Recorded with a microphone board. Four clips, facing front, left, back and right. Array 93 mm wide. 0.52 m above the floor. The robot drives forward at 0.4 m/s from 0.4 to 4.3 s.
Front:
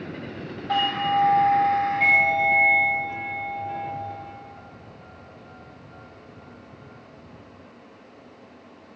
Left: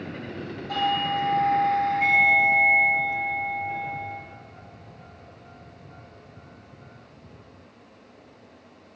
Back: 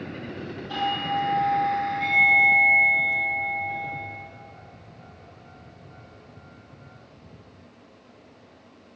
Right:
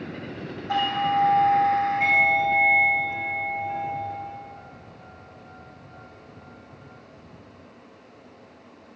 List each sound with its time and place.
0.7 s a doorbell: 25° right, 3 m; by 4.2 s 40° right, 2 m